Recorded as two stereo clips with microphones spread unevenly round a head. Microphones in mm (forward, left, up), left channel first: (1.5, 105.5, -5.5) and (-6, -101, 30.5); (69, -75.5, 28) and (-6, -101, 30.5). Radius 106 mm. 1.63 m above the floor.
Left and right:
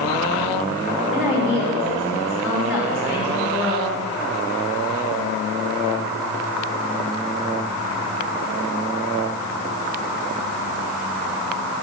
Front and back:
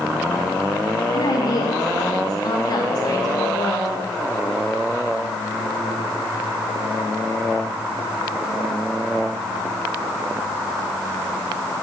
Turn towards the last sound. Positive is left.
turn(degrees=-5)